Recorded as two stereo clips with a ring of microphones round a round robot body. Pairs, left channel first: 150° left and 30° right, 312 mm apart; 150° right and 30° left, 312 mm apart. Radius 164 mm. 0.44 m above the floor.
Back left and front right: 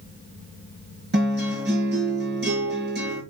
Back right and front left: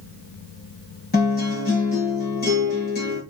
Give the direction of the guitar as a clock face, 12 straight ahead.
3 o'clock.